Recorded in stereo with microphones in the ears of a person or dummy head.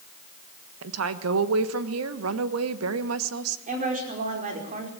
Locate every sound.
0.8 s a woman speaking: 85° right, 1.3 m
3.7 s a woman speaking: 45° right (ahead or behind), 5 m